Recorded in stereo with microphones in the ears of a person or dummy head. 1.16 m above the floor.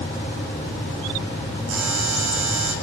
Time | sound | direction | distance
1.7 | a buzzer | 75° right (ahead or behind) | 8.5 m